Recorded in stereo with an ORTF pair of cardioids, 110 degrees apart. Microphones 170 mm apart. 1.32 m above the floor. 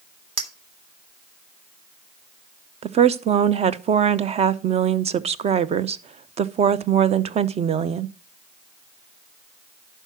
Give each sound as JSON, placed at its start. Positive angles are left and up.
{"t": 0.4, "sound": "a clink", "azimuth_deg": -35, "distance_m": 1.9}
{"t": 2.8, "sound": "a woman speaking", "azimuth_deg": -40, "distance_m": 0.8}